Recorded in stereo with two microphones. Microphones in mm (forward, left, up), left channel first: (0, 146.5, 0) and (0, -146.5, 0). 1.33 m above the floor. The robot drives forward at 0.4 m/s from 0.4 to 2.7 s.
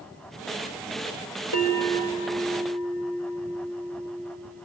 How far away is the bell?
About 4 m.